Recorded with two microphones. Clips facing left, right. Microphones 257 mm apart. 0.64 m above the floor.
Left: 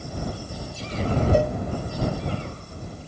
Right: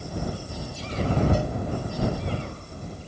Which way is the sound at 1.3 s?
65° left (ahead or behind).